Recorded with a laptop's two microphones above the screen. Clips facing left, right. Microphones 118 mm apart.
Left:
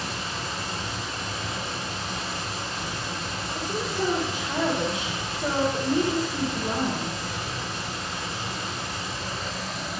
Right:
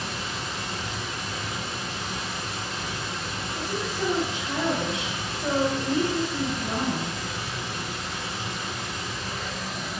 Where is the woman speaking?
45° left (ahead or behind), 3 m.